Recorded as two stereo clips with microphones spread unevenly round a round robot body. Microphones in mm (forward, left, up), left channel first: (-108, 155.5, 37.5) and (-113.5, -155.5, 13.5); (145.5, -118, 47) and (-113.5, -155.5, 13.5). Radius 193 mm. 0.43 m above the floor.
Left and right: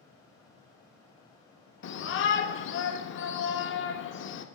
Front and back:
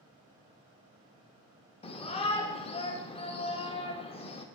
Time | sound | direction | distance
1.8 | a shout | 75° left | 0.8 m